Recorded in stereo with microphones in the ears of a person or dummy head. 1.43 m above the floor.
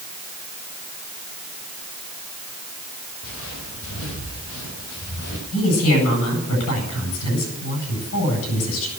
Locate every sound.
3.2 s footsteps: 80° left, 8.5 m; by 5.4 s 75° left (ahead or behind), 6.5 m
5.5 s a woman speaking: 80° left, 9.5 m